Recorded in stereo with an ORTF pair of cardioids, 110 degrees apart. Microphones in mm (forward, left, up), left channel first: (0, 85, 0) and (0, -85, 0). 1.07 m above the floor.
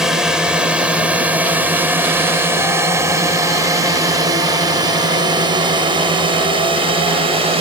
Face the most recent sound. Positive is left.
turn(degrees=-30)